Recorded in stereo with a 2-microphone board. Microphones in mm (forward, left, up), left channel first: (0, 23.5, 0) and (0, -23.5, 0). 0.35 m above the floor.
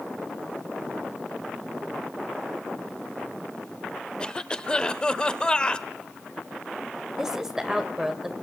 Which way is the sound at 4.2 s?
20° left (ahead or behind).